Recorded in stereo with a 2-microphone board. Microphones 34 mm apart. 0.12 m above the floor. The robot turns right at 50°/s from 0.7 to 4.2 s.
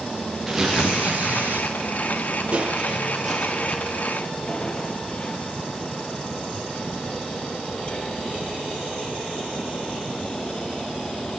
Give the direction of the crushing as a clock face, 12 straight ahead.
2 o'clock.